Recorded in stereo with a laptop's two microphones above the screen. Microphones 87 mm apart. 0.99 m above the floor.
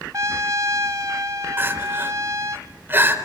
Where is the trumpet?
40° right (ahead or behind), 0.9 m.